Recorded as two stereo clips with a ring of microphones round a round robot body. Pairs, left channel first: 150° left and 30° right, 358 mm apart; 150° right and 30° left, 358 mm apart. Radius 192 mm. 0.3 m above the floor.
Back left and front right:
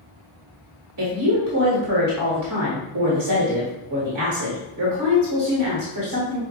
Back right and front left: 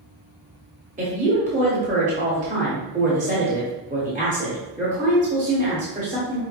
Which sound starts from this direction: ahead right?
A woman speaking, at 1.0 s.